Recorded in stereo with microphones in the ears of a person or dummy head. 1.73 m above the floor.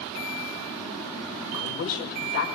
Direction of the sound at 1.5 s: 75° left (ahead or behind).